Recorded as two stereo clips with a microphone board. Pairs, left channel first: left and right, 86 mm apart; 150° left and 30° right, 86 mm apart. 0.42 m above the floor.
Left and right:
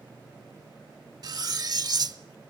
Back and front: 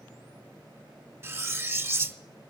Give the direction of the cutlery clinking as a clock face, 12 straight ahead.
3 o'clock.